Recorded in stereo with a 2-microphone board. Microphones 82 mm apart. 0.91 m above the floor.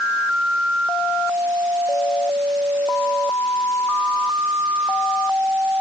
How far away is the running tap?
I don't hear a running tap.